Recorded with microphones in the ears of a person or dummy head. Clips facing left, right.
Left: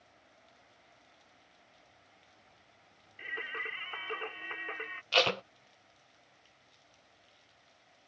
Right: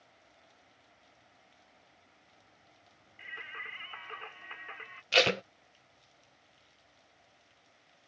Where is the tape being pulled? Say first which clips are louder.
Right 2 dB; 20° right (ahead or behind).